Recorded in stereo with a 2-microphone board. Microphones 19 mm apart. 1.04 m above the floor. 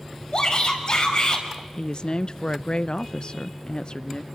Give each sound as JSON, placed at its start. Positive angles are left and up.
{"t": 0.3, "sound": "a shout", "side_deg": 50, "distance_m": 5.0}
{"t": 1.8, "sound": "a woman speaking", "side_deg": 50, "distance_m": 0.5}